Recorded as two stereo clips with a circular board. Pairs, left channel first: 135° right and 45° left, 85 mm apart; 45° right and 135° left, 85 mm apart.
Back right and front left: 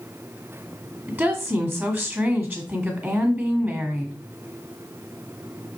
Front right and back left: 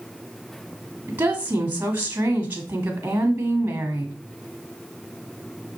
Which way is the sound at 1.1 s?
90° left.